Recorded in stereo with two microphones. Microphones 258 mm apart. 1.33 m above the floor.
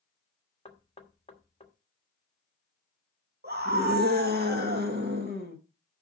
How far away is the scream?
About 1.8 m.